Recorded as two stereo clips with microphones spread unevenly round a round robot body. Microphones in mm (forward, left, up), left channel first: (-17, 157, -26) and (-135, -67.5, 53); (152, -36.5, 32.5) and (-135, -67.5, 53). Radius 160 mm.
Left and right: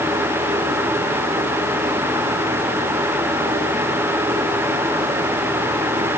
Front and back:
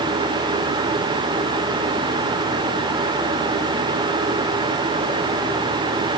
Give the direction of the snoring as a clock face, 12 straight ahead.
No snoring in this recording.